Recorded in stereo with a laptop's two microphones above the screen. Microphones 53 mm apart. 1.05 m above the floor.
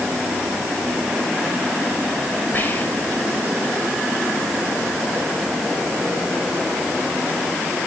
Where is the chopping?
No chopping in this recording.